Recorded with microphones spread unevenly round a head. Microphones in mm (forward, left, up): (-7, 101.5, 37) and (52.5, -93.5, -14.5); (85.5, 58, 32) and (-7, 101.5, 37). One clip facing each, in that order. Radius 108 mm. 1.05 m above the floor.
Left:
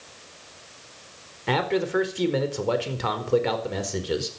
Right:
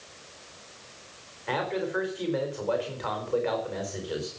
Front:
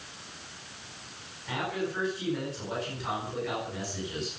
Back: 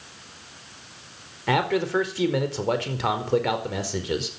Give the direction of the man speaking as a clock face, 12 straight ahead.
7 o'clock.